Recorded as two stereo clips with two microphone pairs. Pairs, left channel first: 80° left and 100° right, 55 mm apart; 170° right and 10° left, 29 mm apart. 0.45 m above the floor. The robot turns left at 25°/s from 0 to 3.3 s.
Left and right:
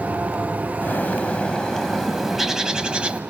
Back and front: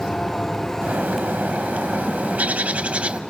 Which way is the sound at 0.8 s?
25° left.